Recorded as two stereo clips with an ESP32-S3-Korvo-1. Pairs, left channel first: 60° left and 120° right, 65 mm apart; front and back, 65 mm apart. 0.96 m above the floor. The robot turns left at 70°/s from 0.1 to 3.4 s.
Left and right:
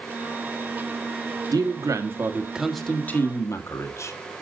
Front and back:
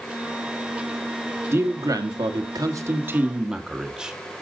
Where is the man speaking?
125° right, 1.5 m; by 4.1 s 100° left, 1.5 m.